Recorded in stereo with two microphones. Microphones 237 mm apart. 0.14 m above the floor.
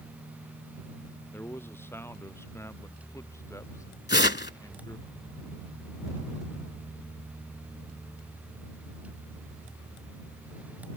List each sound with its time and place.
1.3 s a man speaking: 10° left (ahead or behind); by 5.1 s 15° left (ahead or behind)
4.1 s tearing paper: 45° left (ahead or behind)